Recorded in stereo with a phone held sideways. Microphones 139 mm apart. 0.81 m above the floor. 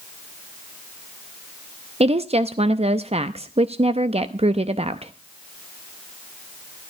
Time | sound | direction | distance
2.0 | a woman speaking | 45° right (ahead or behind) | 0.6 m